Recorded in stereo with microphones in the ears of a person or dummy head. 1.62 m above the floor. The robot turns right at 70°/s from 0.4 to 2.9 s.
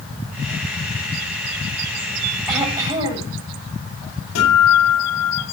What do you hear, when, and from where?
2.5 s throat clearing: straight behind, 6.5 m; by 3.3 s 150° right, 6.5 m
4.3 s a guitar: 90° left, 9.5 m